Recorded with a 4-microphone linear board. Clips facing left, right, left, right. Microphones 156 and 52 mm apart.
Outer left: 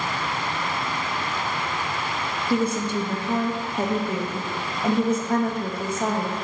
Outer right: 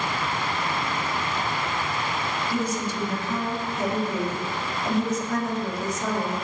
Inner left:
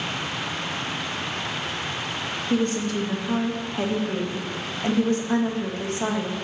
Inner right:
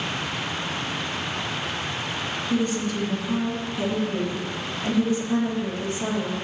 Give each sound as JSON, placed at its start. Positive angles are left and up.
{"t": 2.5, "sound": "a woman speaking", "side_deg": 60, "distance_m": 1.5}